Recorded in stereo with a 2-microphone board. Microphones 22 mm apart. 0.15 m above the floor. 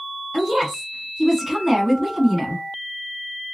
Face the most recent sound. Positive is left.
turn(degrees=-15)  # may be behind; listen again after turning